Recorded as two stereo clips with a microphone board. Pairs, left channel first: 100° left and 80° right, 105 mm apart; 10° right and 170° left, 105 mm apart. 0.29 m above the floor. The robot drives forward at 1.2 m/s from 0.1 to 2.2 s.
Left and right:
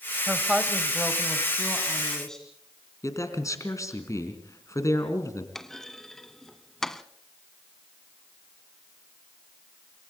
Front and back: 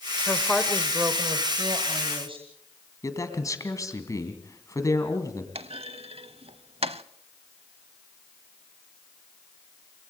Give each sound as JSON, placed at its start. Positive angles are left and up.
{"t": 0.3, "sound": "a woman speaking", "azimuth_deg": -20, "distance_m": 1.2}
{"t": 3.0, "sound": "a man speaking", "azimuth_deg": 45, "distance_m": 3.0}
{"t": 5.5, "sound": "a clunk", "azimuth_deg": -175, "distance_m": 0.6}